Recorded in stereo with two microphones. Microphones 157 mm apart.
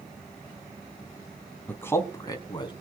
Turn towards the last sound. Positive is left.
turn(degrees=30)  # may be behind; listen again after turning